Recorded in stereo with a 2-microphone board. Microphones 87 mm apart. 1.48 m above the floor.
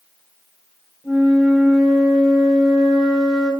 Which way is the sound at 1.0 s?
Centre (ahead or behind).